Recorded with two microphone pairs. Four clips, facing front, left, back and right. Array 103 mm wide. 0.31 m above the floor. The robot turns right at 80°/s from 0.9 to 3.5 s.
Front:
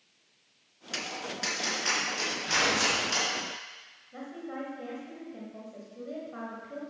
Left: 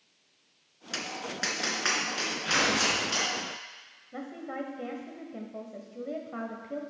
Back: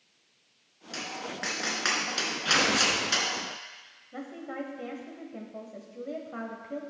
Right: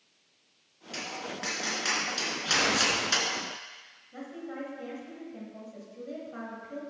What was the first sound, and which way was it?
Tapping, 65° left.